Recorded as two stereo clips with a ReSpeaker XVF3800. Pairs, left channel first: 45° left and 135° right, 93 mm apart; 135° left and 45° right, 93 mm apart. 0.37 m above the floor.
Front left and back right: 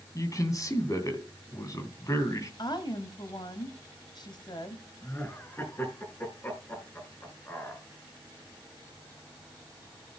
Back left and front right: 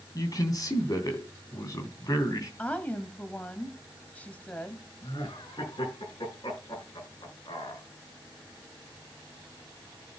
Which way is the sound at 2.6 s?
65° left.